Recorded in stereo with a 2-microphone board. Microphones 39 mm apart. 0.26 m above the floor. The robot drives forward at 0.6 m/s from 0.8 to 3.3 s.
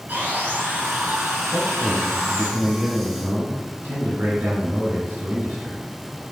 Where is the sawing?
55° right (ahead or behind), 3 m; by 2.5 s 65° right (ahead or behind), 2.5 m.